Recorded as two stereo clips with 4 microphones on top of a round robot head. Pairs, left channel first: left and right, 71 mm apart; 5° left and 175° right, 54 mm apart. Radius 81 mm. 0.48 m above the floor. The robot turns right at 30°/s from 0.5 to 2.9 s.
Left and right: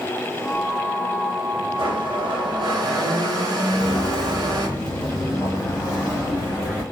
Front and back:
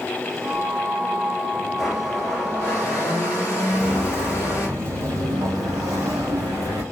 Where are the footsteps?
50° left, 0.6 m; by 6.8 s 170° right, 1.8 m.